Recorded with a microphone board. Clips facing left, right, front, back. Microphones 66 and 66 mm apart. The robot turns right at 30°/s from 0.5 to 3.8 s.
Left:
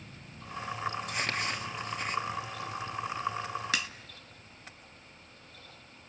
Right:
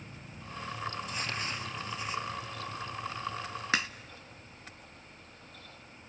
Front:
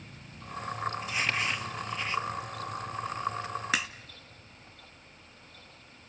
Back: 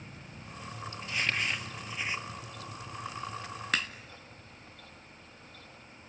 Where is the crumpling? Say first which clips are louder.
Left 3 dB, back 2 dB; 75° left, 1.4 m; by 2.2 s 110° left, 1.4 m.